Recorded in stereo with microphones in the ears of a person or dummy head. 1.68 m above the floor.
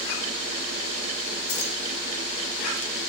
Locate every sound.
1.5 s keys jangling: 55° left (ahead or behind), 2 m